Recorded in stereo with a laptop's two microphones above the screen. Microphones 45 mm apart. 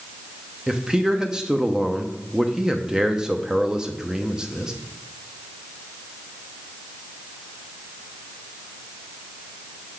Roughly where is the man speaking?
Centre.